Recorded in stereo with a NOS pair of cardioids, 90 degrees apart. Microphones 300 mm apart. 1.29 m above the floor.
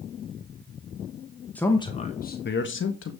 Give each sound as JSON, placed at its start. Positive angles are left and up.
{"t": 1.6, "sound": "a man speaking", "azimuth_deg": 5, "distance_m": 1.1}